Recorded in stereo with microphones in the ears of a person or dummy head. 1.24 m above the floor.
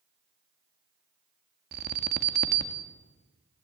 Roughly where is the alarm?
Right.